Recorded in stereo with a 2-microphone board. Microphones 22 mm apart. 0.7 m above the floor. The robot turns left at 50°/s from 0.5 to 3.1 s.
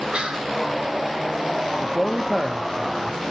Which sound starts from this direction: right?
Whispering, at 0.1 s.